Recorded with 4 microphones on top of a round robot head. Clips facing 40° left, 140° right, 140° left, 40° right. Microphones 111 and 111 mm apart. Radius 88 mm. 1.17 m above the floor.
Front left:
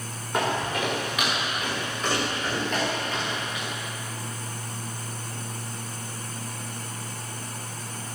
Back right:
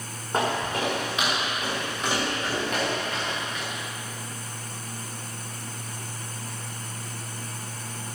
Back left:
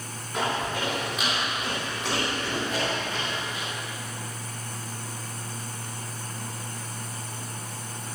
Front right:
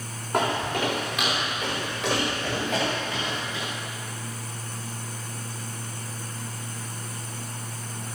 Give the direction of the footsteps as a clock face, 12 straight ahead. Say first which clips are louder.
Even, front right 3 dB; 3 o'clock.